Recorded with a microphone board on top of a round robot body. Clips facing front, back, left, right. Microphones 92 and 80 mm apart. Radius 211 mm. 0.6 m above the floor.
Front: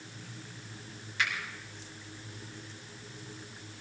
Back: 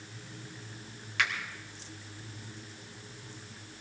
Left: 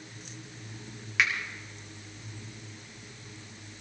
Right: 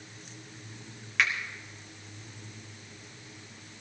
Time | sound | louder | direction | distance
1.2 | a finger snap | back 1 dB, even | 175° left | 4 m